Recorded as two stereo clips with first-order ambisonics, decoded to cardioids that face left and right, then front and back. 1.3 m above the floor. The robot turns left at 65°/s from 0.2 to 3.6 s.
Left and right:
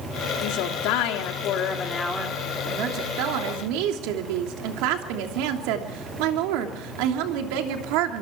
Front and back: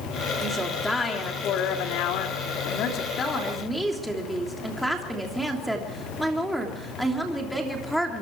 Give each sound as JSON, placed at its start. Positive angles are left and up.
{"t": 0.4, "sound": "a woman speaking", "azimuth_deg": 115, "distance_m": 3.0}